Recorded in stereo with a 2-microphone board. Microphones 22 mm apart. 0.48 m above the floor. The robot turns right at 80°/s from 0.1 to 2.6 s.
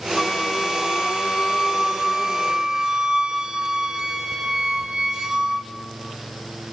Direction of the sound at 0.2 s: 25° left.